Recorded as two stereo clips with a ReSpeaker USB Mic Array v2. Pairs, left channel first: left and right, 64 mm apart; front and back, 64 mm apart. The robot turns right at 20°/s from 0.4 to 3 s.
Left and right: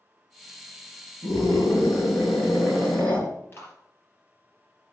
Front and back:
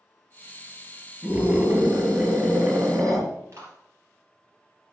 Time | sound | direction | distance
1.2 | a scream | 120° left | 6 m
3.5 | a clap | 140° left | 4.5 m